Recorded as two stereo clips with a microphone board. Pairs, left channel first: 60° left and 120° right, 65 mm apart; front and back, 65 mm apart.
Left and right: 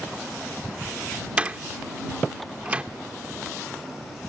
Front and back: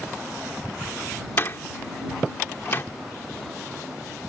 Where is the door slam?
50° right.